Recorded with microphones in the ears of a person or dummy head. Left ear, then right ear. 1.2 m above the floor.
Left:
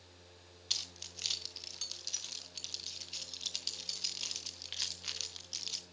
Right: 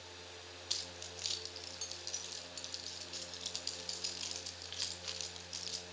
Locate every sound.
0.7 s keys jangling: 10° left (ahead or behind), 1.1 m